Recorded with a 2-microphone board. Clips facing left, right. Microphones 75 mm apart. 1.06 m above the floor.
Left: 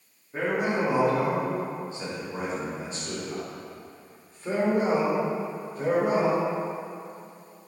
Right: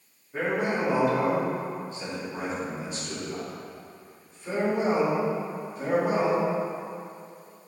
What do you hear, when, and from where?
0.3 s a man speaking: 10° left (ahead or behind), 2.5 m; by 6.5 s 50° left (ahead or behind), 4.5 m